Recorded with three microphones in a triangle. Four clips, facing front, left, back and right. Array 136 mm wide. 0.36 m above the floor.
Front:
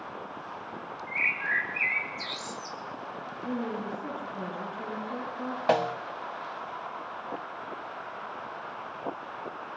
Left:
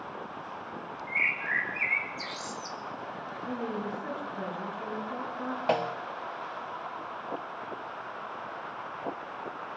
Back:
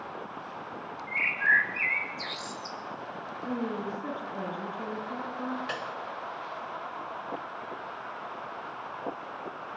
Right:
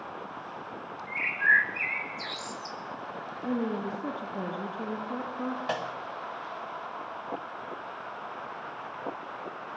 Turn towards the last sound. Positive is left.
turn(degrees=20)